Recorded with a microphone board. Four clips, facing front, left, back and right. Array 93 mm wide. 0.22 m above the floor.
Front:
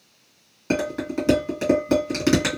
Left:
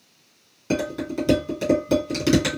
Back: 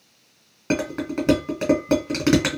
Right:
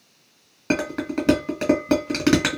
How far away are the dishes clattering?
About 1.5 m.